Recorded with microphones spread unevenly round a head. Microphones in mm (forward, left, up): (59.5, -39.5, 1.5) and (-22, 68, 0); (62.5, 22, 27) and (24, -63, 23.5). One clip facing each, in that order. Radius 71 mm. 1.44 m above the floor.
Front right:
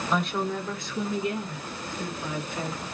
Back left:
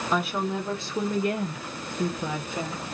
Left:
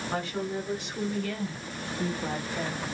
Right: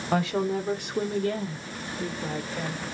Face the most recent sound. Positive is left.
turn(degrees=140)